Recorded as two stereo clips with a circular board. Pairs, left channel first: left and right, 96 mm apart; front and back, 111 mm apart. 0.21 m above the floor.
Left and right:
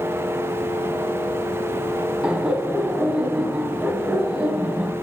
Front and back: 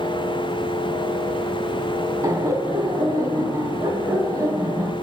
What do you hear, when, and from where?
2.2 s laughter: 160° right, 1.1 m